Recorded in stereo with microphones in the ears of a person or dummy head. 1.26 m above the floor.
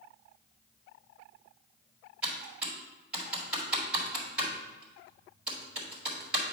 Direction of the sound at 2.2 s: 10° right (ahead or behind).